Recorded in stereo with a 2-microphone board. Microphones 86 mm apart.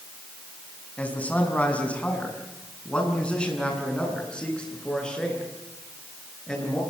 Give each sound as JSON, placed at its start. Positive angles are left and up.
{"t": 1.0, "sound": "a man speaking", "side_deg": 15, "distance_m": 5.5}